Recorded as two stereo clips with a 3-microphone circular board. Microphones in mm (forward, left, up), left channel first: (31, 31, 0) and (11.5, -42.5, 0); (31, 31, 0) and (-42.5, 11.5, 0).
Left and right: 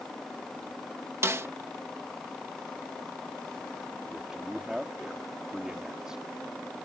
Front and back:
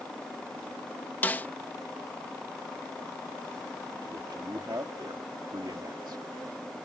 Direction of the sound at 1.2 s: 50° right.